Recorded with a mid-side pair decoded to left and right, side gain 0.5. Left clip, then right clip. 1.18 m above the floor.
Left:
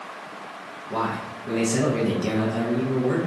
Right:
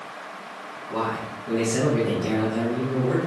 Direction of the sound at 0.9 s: 30° left.